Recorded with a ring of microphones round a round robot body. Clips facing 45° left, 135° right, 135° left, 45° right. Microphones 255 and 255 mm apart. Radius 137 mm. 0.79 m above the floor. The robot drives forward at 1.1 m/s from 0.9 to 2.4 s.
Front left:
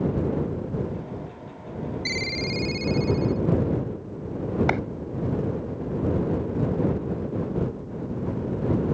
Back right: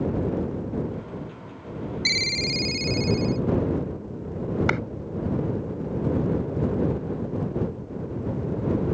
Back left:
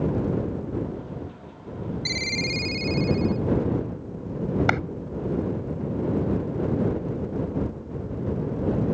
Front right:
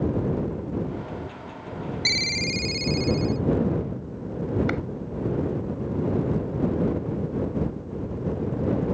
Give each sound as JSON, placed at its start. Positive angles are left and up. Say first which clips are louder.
{"t": 2.0, "sound": "a ringtone", "louder": "front left 1 dB, even", "azimuth_deg": -95}
{"t": 4.7, "sound": "a clap", "louder": "front left 2 dB, even", "azimuth_deg": 155}